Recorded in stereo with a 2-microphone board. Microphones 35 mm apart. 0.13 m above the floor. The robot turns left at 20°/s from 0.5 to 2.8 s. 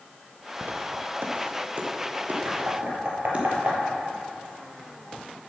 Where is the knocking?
60° right (ahead or behind), 3 m; by 3.8 s 65° right (ahead or behind), 3 m.